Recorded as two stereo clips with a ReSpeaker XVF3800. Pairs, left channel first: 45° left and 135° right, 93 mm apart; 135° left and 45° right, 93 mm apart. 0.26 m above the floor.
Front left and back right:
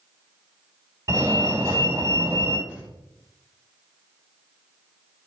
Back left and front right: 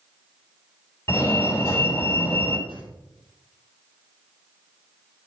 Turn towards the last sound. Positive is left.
turn(degrees=-55)